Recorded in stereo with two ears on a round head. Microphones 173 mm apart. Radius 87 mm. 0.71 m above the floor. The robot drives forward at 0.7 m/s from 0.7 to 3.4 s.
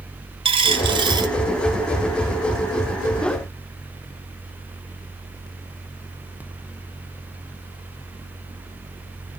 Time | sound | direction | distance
0.5 | a dropped coin | 25° right (ahead or behind) | 1.5 m